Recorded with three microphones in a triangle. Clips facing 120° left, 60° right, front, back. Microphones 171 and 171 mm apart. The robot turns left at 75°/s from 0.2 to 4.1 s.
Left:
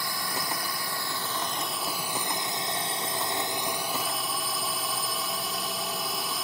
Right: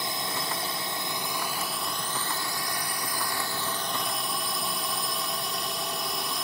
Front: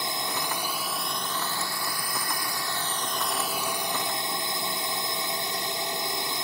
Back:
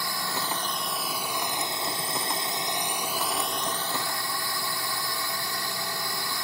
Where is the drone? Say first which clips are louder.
Right 1 dB, front 1 dB; 35° right; by 6.5 s 35° left.